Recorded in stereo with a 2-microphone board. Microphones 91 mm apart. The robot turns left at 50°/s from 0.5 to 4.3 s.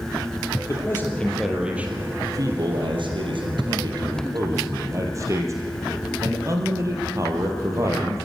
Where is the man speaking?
40° left, 3.5 m; by 8.3 s 140° right, 3.5 m.